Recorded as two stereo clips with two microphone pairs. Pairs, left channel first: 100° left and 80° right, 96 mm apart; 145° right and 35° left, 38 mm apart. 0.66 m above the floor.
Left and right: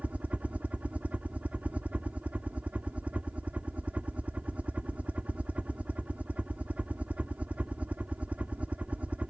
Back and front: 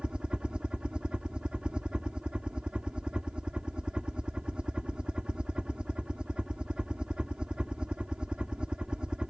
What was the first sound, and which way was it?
A helicopter, 15° right.